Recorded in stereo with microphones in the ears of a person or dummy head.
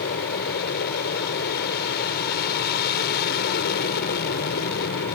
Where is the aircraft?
55° left (ahead or behind).